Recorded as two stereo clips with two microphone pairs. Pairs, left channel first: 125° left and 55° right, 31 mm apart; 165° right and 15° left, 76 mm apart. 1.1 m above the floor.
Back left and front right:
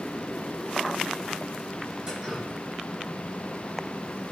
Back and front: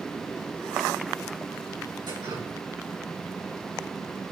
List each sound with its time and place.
2.1 s dripping: 15° left, 7.5 m